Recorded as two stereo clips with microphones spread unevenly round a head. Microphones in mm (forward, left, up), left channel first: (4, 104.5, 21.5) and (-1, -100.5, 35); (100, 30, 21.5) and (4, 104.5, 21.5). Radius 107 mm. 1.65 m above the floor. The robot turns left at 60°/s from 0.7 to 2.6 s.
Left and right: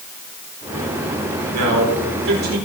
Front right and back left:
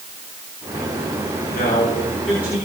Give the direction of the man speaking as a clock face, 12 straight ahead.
3 o'clock.